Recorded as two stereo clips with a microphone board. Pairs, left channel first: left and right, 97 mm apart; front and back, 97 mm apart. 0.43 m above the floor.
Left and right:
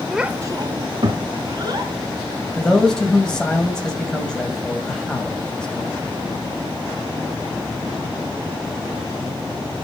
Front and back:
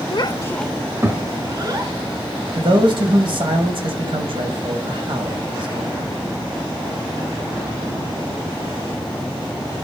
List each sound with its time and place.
0.1 s a child speaking: 5° right, 0.9 m; by 1.9 s 135° right, 2.5 m
2.5 s a man speaking: 170° left, 3 m